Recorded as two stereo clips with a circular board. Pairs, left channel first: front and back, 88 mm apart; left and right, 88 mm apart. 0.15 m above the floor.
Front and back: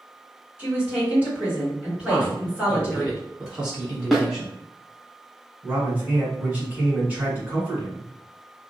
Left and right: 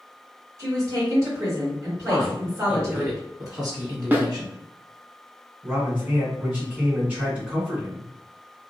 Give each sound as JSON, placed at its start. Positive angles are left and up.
{"t": 0.6, "sound": "a woman speaking", "azimuth_deg": -115, "distance_m": 1.9}
{"t": 2.1, "sound": "a woman speaking", "azimuth_deg": -100, "distance_m": 2.0}
{"t": 4.1, "sound": "a snare drum", "azimuth_deg": -90, "distance_m": 0.7}
{"t": 5.6, "sound": "a man speaking", "azimuth_deg": -140, "distance_m": 1.3}